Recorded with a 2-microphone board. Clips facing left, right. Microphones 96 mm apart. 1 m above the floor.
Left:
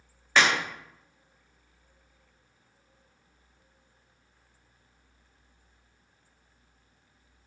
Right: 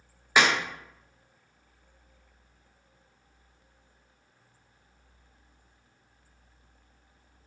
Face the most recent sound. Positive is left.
turn(degrees=-15)  # may be behind; listen again after turning